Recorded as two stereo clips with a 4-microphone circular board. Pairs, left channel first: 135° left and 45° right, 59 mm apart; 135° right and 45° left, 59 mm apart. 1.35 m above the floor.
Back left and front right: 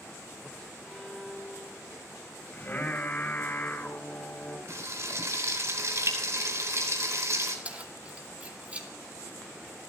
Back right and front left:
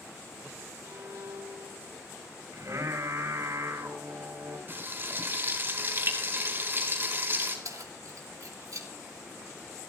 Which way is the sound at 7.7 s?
20° left.